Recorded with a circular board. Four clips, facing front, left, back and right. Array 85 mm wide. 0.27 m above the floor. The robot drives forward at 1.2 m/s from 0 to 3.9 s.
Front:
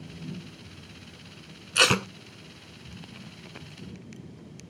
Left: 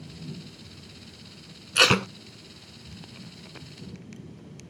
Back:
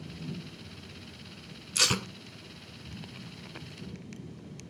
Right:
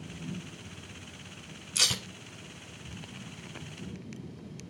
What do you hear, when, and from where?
1.8 s tape being pulled: 45° left; by 2.1 s 80° left